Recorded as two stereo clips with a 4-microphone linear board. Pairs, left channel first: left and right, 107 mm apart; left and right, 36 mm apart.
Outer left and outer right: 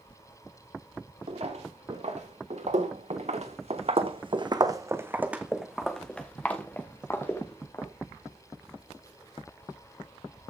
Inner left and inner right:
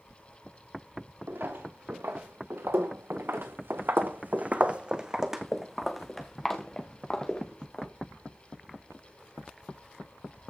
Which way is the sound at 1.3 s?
75° right (ahead or behind).